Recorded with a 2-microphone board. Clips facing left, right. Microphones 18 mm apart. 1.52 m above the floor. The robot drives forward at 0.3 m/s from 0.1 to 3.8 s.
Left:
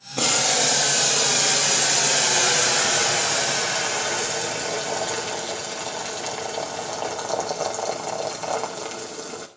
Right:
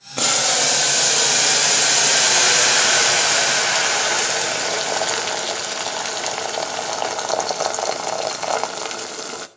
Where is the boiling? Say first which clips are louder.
Right 2 dB; 25° right (ahead or behind), 1.5 m; by 9.5 s 45° right (ahead or behind), 0.9 m.